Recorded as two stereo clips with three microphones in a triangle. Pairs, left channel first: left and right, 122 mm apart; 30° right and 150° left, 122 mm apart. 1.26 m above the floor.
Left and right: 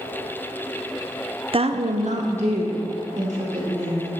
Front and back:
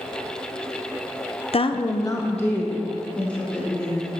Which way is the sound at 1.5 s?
55° right.